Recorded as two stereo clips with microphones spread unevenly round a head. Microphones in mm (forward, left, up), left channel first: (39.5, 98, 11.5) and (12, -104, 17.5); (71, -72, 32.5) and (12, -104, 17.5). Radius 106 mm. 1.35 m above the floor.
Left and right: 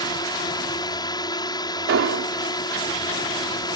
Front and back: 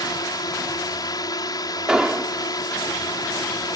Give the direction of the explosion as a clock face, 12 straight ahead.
2 o'clock.